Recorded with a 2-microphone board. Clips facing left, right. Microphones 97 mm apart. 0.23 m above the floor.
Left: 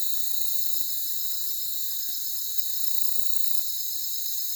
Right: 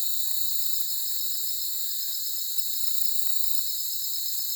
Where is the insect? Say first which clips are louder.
Right 2 dB; 5° right (ahead or behind), 1.2 m.